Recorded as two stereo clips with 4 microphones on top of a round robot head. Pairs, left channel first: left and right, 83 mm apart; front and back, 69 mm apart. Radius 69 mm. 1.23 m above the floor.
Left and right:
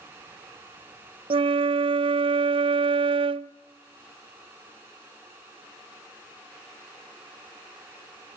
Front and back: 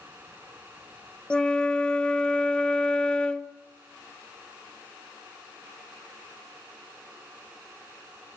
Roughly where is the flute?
Right.